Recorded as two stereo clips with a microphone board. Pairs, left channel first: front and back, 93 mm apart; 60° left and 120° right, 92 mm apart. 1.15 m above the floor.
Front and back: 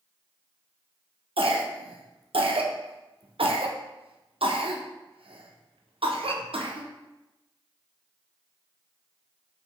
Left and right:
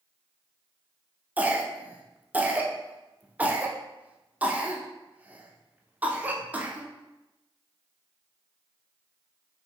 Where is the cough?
165° left, 0.7 m.